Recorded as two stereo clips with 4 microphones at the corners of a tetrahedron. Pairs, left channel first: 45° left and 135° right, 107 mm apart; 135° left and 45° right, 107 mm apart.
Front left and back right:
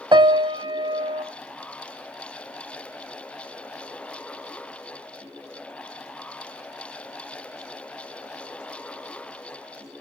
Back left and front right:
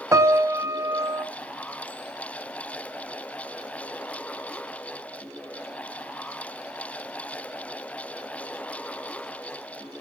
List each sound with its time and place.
0.1 s a piano: 100° right, 0.6 m